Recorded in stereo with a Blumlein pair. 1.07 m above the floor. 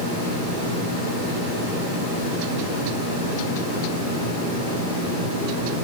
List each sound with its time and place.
Only background noise.